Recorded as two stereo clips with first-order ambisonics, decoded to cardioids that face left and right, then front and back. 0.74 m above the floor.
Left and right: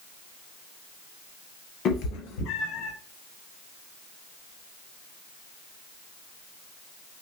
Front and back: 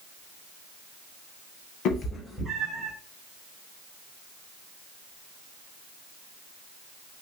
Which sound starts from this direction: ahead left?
A cat meowing, at 1.9 s.